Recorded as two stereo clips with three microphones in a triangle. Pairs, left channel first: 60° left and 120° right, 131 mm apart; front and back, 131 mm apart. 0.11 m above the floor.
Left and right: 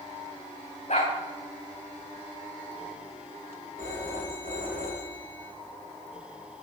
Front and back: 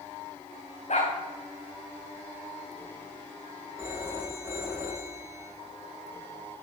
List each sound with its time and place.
0.9 s a dog barking: 30° left, 4 m
3.8 s a phone ringing: 110° right, 7 m